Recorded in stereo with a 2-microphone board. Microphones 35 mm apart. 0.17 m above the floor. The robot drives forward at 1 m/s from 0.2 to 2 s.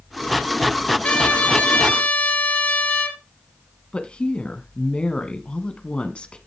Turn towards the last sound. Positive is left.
turn(degrees=30)  # may be behind; listen again after turning